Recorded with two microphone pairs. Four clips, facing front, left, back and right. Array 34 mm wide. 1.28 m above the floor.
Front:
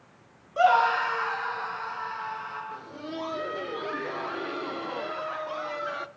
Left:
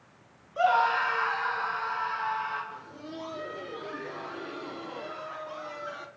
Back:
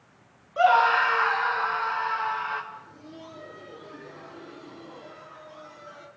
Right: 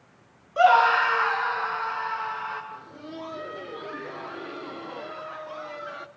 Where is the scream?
110° right, 0.6 m; by 2.6 s 150° right, 1.8 m.